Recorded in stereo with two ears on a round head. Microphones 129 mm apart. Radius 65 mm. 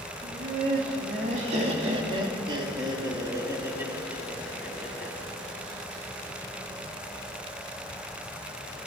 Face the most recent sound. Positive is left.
turn(degrees=-5)  # may be behind; listen again after turning